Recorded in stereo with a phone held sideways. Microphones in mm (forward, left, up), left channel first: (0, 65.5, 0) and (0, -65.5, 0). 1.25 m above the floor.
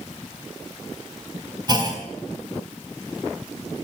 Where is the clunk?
35° right (ahead or behind), 3.5 m.